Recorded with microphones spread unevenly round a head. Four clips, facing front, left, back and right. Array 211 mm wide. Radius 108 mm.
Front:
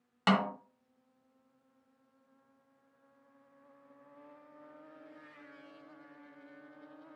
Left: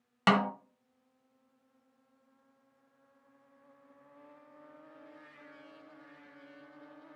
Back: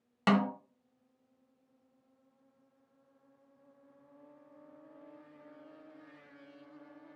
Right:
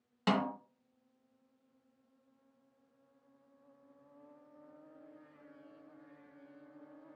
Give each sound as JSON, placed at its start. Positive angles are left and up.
{"t": 0.3, "sound": "a snare drum", "azimuth_deg": 135, "distance_m": 1.2}